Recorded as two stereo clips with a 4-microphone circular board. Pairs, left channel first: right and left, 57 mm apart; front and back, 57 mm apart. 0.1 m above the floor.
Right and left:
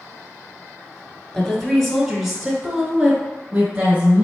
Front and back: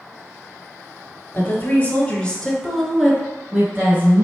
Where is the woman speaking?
15° right, 1.3 m; by 4.2 s 140° left, 1.4 m.